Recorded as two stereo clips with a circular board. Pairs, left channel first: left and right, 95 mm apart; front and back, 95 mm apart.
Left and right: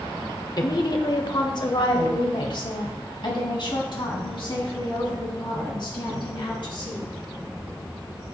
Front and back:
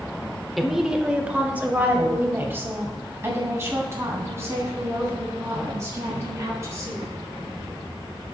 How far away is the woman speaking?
About 1.0 m.